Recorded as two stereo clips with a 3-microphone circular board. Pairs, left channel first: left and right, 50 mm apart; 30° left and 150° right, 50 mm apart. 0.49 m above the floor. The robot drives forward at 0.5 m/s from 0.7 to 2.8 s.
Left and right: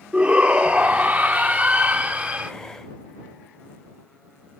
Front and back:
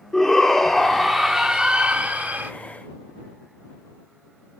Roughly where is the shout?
Ahead right.